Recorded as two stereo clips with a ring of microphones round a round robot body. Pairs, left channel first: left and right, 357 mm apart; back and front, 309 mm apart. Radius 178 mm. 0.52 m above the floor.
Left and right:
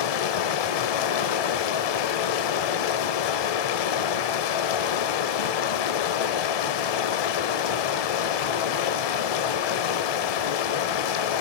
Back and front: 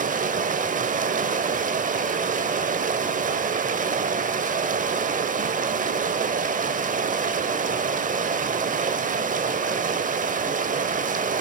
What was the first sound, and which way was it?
Running water, 65° left.